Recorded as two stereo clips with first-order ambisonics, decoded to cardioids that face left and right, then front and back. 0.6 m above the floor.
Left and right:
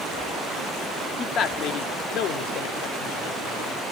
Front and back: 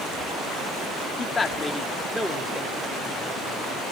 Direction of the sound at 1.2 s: 50° left.